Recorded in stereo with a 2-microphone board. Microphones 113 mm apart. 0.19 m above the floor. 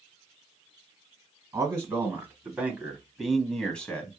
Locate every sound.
1.5 s a man speaking: 25° right (ahead or behind), 1.3 m; by 4.2 s 15° left (ahead or behind), 1.2 m